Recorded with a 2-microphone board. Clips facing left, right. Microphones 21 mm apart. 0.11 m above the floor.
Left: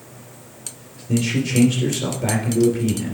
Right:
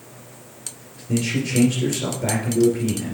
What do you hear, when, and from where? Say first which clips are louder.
1.1 s a man speaking: left 2 dB; centre (ahead or behind), 2.5 m